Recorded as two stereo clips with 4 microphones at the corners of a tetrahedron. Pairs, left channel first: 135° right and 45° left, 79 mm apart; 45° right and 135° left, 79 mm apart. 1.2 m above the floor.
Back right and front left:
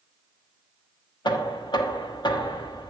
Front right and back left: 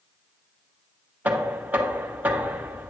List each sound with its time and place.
1.2 s knocking: 155° right, 1.1 m